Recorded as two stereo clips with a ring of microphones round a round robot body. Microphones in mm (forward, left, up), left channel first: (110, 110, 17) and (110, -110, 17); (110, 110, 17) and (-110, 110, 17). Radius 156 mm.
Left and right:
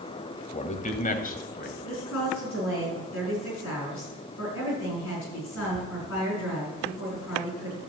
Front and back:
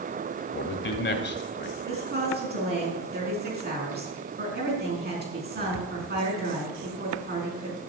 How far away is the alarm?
I don't hear an alarm.